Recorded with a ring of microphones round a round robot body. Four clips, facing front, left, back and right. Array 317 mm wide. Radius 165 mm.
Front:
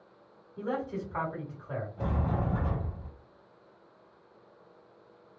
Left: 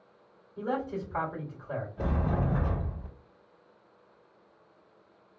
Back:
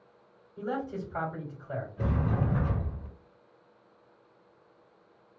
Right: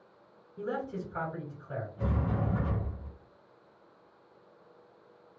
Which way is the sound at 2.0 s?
115° left.